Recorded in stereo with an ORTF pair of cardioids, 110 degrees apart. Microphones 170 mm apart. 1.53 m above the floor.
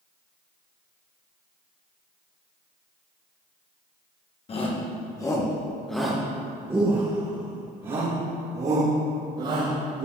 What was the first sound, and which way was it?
A shout, 35° left.